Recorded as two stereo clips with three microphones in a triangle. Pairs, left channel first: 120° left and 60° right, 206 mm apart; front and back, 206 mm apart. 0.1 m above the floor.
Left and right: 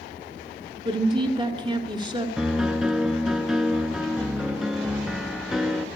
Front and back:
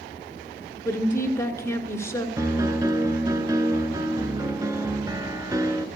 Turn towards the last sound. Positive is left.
turn(degrees=-145)